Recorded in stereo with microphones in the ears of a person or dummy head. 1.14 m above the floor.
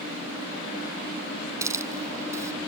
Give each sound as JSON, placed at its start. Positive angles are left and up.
{"t": 1.6, "sound": "a hiss", "side_deg": -15}